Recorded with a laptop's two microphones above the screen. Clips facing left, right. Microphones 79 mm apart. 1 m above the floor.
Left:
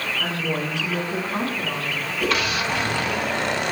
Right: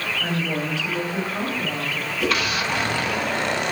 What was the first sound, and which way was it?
A woman speaking, 75° left (ahead or behind).